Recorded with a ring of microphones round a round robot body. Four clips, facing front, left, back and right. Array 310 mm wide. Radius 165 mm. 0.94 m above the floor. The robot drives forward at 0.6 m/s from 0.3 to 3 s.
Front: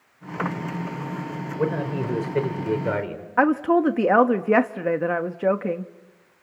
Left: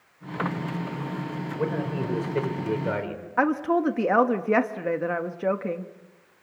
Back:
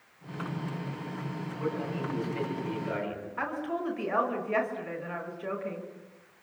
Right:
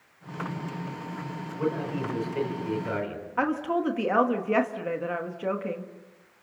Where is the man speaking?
20° left, 5 m; by 3.3 s 25° left, 4 m.